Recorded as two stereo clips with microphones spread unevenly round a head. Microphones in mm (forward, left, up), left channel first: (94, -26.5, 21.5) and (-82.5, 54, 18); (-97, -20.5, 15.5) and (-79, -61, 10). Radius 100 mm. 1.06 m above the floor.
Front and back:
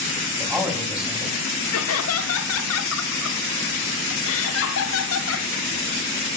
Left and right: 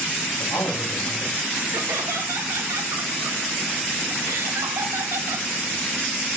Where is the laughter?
30° right, 2.5 m.